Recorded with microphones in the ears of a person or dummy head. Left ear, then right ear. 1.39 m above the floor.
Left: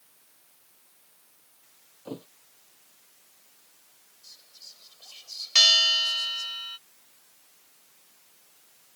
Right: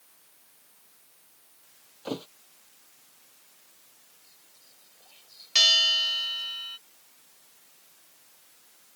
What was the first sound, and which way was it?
A thud, 45° right (ahead or behind).